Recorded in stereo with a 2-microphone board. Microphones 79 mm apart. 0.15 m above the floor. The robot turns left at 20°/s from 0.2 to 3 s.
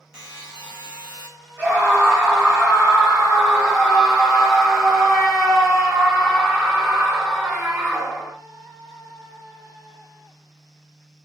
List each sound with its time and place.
0.1 s a buzzer: 10° right (ahead or behind), 0.9 m; by 1.3 s 20° right (ahead or behind), 0.9 m
1.6 s a scream: 15° right (ahead or behind), 1.9 m; by 8.3 s 5° right (ahead or behind), 1.9 m